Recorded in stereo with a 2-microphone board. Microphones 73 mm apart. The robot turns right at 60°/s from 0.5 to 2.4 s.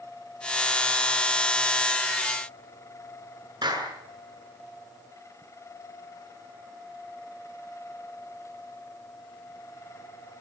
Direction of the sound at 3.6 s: 80° right.